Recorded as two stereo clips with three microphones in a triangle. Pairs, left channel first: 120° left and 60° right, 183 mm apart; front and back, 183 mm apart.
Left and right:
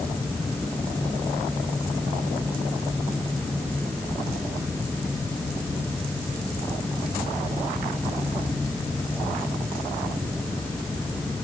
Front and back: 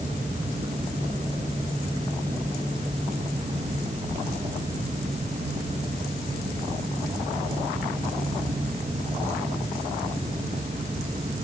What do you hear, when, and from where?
Only background noise.